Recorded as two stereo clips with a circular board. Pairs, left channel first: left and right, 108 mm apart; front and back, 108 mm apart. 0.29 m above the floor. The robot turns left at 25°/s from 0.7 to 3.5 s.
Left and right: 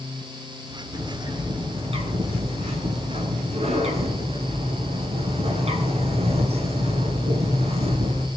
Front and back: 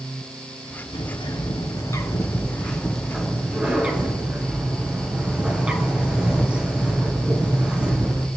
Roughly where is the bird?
Ahead right.